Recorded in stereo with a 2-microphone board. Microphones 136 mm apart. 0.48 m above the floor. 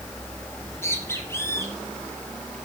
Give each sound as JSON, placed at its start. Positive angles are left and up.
{"t": 0.6, "sound": "a bird", "side_deg": 20, "distance_m": 5.0}